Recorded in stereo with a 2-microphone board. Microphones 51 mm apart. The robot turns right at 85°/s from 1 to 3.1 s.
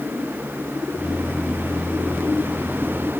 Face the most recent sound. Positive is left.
No sound to turn to.